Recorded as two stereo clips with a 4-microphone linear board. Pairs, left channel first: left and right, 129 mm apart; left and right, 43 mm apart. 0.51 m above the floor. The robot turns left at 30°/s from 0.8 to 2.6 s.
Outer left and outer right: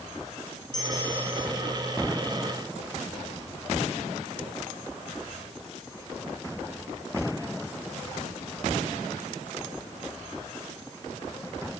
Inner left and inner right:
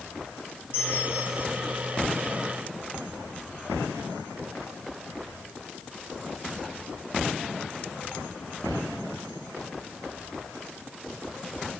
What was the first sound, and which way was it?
A bell, 75° left (ahead or behind).